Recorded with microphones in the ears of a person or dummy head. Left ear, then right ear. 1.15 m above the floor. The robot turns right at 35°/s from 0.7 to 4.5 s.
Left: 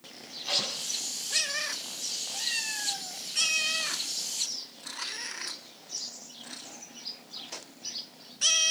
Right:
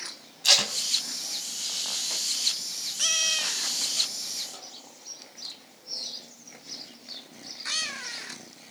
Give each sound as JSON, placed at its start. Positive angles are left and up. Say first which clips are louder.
{"t": 0.4, "sound": "tape being pulled", "louder": "right 8 dB", "side_deg": -85, "distance_m": 4.5}